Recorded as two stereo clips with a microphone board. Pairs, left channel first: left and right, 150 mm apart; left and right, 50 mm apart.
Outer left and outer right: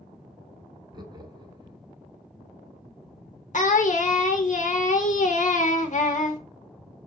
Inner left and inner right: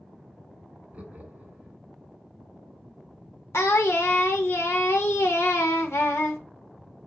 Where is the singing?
55° left (ahead or behind), 0.6 m.